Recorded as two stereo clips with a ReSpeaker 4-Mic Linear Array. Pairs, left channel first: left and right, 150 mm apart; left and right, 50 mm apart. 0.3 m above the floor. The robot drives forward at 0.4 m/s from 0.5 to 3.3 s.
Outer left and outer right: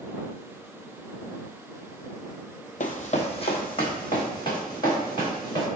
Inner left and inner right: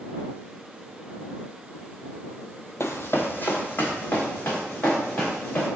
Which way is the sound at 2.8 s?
65° left (ahead or behind).